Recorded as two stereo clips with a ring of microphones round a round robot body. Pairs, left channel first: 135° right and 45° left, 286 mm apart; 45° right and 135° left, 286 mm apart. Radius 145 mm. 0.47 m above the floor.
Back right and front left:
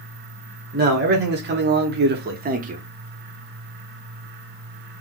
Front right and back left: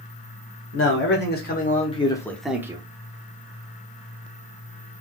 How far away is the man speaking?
About 1.7 m.